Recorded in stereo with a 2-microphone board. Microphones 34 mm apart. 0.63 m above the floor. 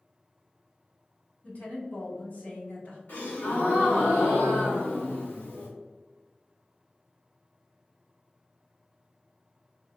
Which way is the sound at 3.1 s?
65° left (ahead or behind).